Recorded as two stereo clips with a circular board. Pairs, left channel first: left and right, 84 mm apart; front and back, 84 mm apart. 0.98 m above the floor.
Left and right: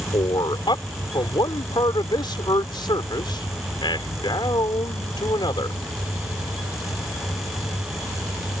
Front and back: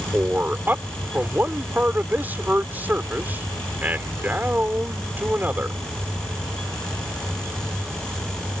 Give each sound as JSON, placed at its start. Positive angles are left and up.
{"t": 0.1, "sound": "a man speaking", "azimuth_deg": 115}